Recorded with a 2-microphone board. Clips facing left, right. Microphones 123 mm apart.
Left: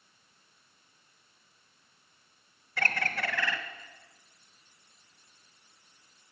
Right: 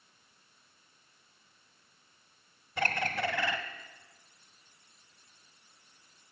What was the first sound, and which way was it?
A bird, 20° right (ahead or behind).